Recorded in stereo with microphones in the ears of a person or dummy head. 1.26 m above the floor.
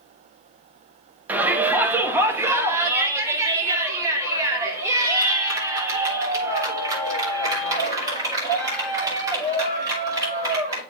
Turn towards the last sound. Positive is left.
turn(degrees=-25)  # may be behind; listen again after turning